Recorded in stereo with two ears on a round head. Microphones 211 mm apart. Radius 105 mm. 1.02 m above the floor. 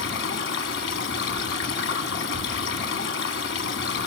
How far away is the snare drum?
I don't hear a snare drum.